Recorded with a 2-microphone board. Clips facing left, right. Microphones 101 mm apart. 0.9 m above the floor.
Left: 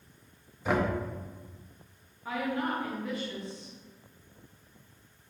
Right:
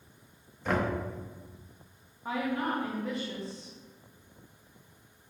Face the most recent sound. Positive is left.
turn(degrees=-30)  # may be behind; listen again after turning